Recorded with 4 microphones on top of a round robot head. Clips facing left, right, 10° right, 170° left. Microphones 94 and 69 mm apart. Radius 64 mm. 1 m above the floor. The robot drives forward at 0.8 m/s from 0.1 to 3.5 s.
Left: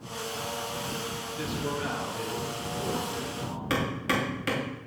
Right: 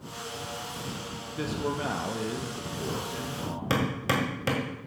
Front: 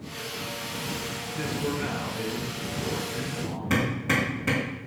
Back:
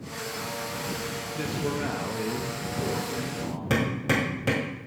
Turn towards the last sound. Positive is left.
turn(degrees=-145)